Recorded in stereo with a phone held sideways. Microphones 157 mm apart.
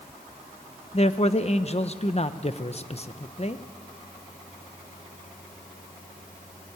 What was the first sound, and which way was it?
A man speaking, 40° left (ahead or behind).